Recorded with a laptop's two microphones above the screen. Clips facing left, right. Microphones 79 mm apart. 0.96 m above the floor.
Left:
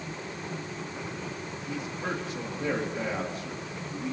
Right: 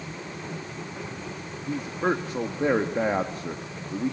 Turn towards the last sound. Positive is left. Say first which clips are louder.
# right 8 dB
turn(degrees=-45)  # may be behind; listen again after turning